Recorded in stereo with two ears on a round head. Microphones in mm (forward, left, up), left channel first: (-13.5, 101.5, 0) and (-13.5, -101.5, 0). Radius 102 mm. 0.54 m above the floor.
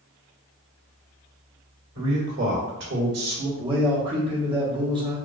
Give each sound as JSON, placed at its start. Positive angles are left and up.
{"t": 1.9, "sound": "a man speaking", "side_deg": -60, "distance_m": 1.7}
{"t": 3.6, "sound": "a man speaking", "side_deg": -25, "distance_m": 0.9}